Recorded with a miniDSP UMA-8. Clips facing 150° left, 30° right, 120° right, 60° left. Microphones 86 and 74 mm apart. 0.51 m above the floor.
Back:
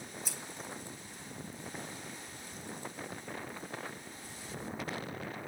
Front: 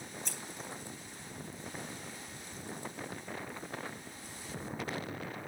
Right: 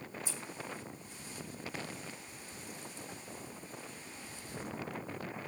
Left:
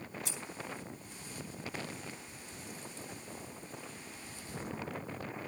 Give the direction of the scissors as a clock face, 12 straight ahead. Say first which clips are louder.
Even, even; 10 o'clock.